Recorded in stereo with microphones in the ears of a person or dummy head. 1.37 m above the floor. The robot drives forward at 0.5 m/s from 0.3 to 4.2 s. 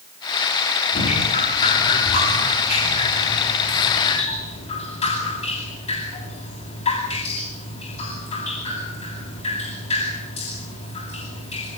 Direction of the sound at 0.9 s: 40° left (ahead or behind).